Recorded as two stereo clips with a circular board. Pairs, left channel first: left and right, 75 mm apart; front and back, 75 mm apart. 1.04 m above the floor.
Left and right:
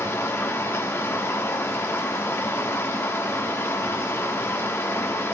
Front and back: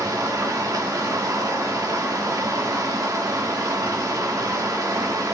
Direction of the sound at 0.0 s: 145° left.